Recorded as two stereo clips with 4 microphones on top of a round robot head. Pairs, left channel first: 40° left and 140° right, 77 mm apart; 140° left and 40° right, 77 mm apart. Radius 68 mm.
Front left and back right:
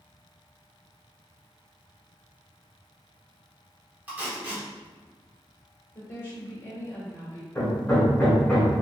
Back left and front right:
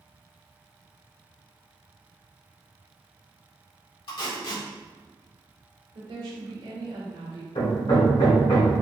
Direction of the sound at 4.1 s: 155° left.